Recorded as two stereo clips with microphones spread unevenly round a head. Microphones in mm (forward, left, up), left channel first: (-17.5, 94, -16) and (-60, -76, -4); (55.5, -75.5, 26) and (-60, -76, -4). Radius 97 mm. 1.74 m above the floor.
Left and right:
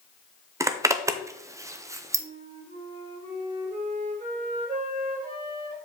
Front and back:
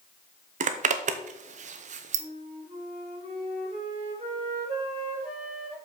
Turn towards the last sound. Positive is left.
turn(degrees=-145)